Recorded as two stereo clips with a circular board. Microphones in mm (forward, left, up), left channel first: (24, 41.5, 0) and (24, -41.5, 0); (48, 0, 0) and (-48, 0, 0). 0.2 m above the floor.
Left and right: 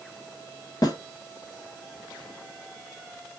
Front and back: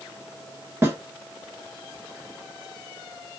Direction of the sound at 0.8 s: 120° left.